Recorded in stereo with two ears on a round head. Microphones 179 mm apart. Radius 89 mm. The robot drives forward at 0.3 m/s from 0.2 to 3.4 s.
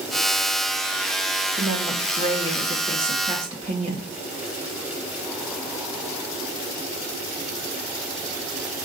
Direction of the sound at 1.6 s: 30° right (ahead or behind).